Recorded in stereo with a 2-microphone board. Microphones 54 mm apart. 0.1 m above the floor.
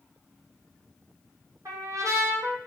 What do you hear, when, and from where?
1.6 s a trumpet: 80° right, 0.7 m